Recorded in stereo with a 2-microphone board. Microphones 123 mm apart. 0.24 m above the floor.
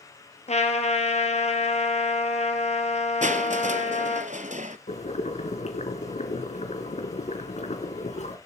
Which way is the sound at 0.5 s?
60° left (ahead or behind).